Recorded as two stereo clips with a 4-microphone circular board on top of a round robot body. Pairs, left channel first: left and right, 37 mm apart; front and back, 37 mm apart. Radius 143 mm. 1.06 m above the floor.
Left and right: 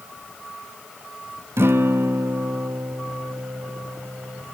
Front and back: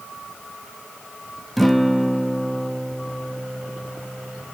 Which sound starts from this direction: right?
A guitar, at 1.6 s.